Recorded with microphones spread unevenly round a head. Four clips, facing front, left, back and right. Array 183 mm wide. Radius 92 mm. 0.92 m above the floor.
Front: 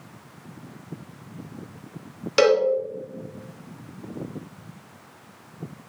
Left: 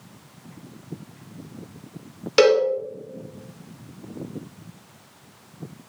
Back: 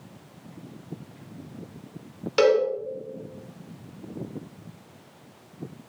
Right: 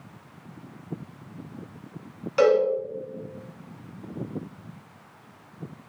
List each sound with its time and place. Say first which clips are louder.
2.4 s a cowbell: left 3 dB, front 1 dB; 65° left, 1.4 m